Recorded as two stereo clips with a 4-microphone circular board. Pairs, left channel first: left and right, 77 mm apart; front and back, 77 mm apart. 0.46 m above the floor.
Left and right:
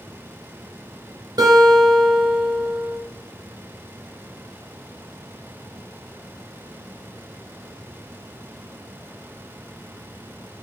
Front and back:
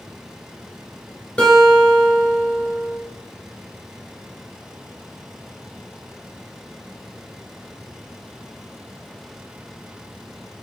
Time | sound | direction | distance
1.4 | a guitar | 80° right | 2.5 m